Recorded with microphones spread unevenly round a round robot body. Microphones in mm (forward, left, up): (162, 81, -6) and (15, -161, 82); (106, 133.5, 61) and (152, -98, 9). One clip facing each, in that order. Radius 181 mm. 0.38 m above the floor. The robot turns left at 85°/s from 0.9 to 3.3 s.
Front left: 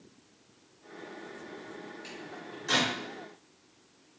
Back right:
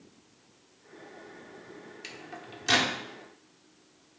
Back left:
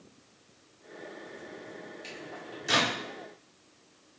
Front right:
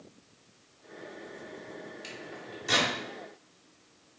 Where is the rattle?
No rattle in this recording.